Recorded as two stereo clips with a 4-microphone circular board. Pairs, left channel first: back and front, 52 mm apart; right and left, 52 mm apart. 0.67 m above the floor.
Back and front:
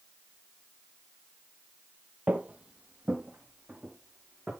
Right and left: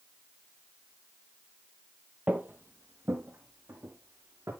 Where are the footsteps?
45° left, 0.8 m; by 4.5 s 80° left, 4 m.